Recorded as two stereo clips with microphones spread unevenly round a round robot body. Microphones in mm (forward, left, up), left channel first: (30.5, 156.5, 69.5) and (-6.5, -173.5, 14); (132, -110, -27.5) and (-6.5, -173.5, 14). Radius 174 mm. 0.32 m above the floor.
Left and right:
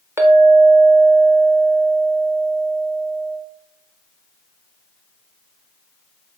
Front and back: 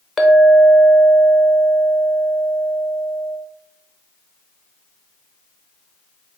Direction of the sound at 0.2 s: 40° right.